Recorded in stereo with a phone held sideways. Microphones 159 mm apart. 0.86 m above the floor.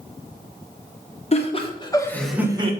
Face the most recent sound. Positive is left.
turn(degrees=-40)  # may be behind; listen again after turning